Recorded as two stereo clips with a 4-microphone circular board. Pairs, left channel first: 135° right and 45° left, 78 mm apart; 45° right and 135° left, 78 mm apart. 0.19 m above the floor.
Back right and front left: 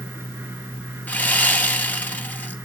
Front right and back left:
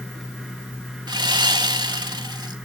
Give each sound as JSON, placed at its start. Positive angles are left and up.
{"t": 1.1, "sound": "sawing", "azimuth_deg": 155, "distance_m": 0.8}